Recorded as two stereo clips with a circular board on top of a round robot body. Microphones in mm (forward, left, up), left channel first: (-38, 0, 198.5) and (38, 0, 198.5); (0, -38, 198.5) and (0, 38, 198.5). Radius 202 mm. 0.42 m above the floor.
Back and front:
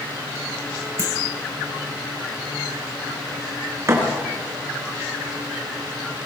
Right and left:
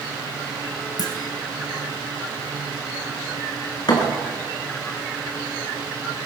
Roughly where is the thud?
Ahead right.